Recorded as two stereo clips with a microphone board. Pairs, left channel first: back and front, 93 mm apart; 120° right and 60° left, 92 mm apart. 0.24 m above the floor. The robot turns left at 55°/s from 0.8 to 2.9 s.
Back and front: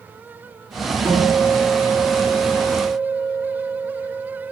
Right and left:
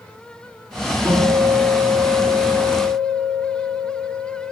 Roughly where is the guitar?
Ahead left.